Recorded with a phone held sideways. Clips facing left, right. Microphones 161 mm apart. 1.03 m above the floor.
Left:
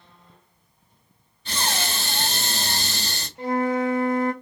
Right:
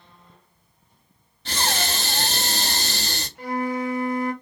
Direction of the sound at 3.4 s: 25° left (ahead or behind).